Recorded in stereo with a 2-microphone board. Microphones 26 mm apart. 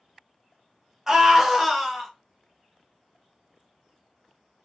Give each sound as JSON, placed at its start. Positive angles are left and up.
{"t": 1.1, "sound": "a scream", "side_deg": -15, "distance_m": 1.2}